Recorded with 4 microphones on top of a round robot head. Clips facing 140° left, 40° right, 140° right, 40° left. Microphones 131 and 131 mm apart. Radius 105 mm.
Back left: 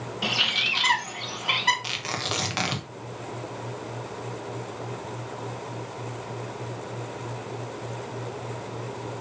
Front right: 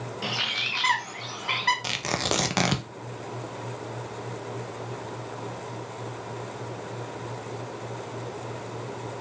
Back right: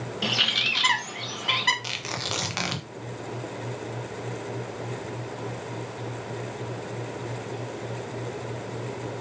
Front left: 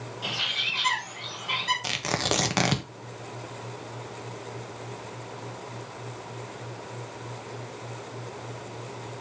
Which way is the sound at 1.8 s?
Straight ahead.